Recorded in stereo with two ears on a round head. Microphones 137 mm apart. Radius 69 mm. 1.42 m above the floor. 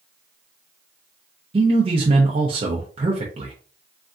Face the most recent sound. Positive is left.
turn(degrees=-35)  # may be behind; listen again after turning